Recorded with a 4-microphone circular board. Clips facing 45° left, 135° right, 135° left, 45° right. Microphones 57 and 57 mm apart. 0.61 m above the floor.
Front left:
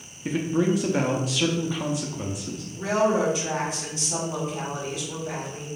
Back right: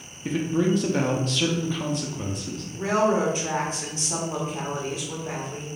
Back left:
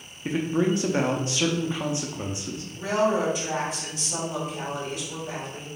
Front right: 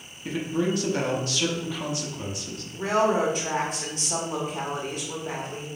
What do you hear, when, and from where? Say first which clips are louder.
0.2 s a man speaking: even, back left 2 dB; 120° left, 0.6 m
2.7 s a woman speaking: even, front right 1 dB; 80° right, 1.4 m